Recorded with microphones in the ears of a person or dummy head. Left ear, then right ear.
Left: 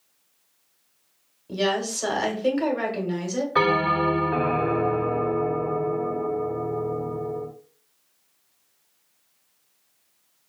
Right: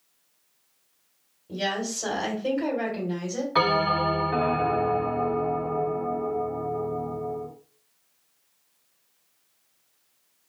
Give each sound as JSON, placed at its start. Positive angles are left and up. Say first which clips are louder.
{"t": 1.5, "sound": "a woman speaking", "louder": "left 4 dB", "side_deg": 45, "distance_m": 1.5}
{"t": 3.5, "sound": "a bell", "louder": "left 1 dB", "side_deg": -10, "distance_m": 1.2}